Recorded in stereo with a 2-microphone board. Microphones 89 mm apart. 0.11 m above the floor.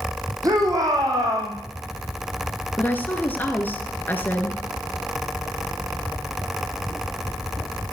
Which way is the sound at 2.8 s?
20° left (ahead or behind).